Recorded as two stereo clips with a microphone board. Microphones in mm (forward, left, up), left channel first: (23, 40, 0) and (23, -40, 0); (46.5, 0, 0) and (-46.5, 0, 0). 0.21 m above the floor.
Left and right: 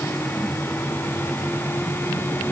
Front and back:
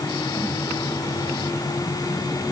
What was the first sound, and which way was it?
Only background noise.